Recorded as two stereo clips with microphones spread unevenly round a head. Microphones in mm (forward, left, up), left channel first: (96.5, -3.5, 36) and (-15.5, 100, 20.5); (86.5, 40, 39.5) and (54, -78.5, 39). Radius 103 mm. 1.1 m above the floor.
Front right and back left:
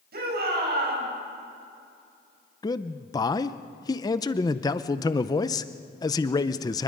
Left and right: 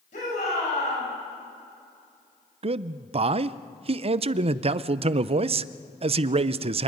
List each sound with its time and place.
0.1 s a shout: 125° left, 7.5 m
2.6 s a man speaking: 110° right, 0.5 m